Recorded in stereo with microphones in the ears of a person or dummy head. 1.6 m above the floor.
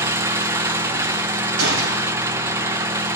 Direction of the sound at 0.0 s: 15° right (ahead or behind).